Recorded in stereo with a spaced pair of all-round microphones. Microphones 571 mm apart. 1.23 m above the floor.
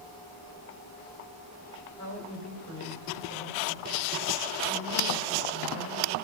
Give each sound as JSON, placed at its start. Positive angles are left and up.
{"t": 2.0, "sound": "a woman speaking", "side_deg": 30, "distance_m": 2.5}